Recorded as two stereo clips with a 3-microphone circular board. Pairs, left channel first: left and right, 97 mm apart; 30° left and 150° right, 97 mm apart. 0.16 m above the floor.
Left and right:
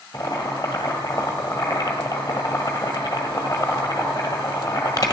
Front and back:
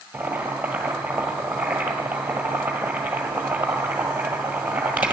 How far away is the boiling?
About 1.7 m.